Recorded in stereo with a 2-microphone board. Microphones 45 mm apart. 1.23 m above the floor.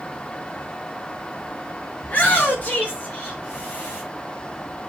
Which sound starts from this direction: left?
A shout, at 2.0 s.